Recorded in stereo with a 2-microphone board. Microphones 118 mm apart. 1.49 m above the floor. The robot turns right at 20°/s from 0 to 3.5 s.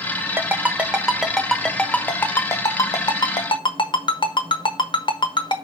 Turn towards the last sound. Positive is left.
turn(degrees=40)  # may be behind; listen again after turning